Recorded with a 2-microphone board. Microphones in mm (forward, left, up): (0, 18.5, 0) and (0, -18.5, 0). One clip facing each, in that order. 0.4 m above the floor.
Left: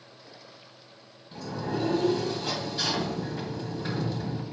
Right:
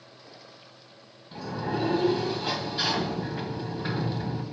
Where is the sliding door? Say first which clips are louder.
Right 1 dB; 20° right (ahead or behind), 2.5 m.